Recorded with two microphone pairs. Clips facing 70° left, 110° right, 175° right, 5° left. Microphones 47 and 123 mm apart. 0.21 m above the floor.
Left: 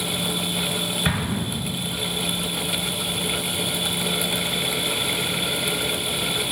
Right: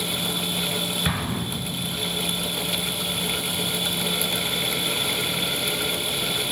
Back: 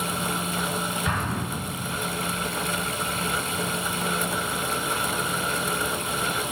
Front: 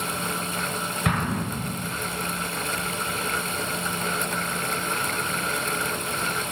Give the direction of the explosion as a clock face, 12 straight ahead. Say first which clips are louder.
Left 2 dB, front 2 dB; 12 o'clock.